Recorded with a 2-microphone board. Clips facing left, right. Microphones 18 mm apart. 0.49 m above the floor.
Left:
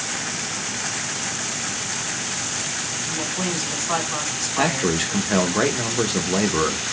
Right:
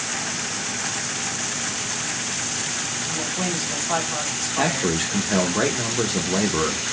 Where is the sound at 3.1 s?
15° left (ahead or behind), 1.7 m.